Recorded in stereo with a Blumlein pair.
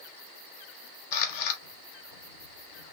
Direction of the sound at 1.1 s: 50° left.